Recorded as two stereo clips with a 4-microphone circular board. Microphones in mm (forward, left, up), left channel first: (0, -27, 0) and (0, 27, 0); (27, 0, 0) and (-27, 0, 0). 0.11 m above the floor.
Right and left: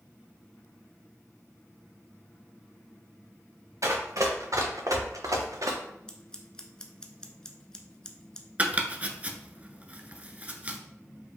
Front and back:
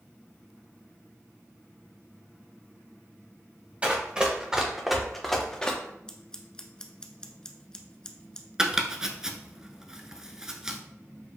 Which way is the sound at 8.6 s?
115° left.